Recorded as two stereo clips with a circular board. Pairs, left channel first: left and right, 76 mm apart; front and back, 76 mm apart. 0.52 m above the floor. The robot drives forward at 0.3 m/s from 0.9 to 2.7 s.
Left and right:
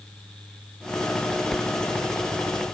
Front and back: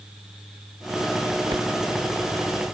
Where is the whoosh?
175° left.